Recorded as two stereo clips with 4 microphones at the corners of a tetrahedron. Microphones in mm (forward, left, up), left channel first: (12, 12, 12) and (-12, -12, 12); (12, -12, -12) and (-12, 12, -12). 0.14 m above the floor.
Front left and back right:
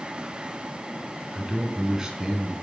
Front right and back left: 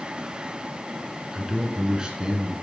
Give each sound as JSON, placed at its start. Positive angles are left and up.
{"t": 1.3, "sound": "a man speaking", "azimuth_deg": 180, "distance_m": 1.9}